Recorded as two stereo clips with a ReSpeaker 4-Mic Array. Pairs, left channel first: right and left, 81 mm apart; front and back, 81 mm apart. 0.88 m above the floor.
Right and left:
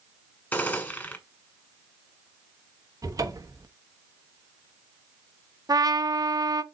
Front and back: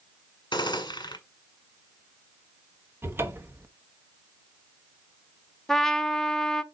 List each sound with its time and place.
0.5 s a gunshot: 25° right, 1.7 m
3.0 s a cupboard door: 125° left, 1.0 m
5.7 s a trumpet: 85° left, 0.7 m